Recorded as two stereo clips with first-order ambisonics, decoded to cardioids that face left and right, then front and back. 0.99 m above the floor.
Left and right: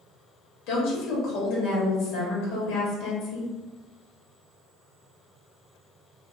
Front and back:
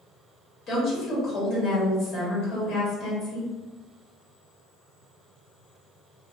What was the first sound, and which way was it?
A woman speaking, 60° left.